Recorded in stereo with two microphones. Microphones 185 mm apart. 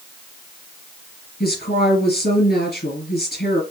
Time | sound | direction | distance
1.4 | a woman speaking | 60° left (ahead or behind) | 3 m